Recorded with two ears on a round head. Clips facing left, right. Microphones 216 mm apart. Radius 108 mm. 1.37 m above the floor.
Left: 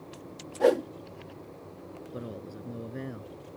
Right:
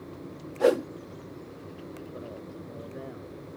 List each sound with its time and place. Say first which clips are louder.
0.6 s a whoosh: right 1 dB; 5° right (ahead or behind)
2.1 s a man speaking: left 1 dB; 35° left (ahead or behind)